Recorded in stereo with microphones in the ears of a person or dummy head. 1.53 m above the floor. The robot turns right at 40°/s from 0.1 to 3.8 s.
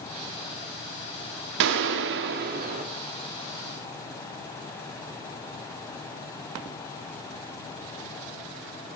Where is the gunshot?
100° right, 1.5 m; by 2.9 s 50° right, 1.5 m.